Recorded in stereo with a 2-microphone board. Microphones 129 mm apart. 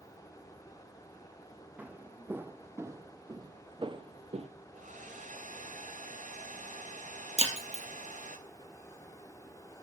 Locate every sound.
1.8 s footsteps: 10° right (ahead or behind), 2 m; by 4.5 s 50° right (ahead or behind), 1.2 m
4.7 s a hair dryer: 70° right (ahead or behind), 3 m
7.4 s breaking glass: 50° right (ahead or behind), 3.5 m